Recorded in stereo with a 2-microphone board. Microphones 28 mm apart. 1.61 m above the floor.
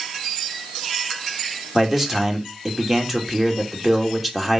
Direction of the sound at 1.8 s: 10° right (ahead or behind).